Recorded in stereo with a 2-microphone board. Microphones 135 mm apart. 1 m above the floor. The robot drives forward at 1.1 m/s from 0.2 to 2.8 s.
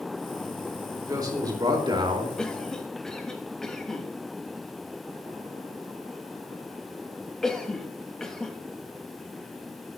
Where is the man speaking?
25° right (ahead or behind), 3.5 m; by 2.3 s 40° right (ahead or behind), 2.5 m.